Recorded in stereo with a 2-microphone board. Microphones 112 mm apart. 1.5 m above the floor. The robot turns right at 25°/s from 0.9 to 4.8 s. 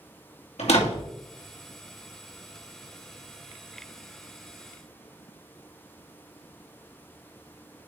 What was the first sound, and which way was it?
A door slam, 75° left (ahead or behind).